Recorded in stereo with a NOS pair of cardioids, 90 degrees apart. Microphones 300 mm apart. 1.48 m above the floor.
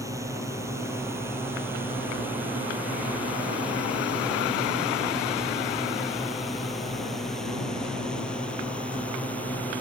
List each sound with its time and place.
0.0 s a drone: 10° right; by 9.8 s 5° left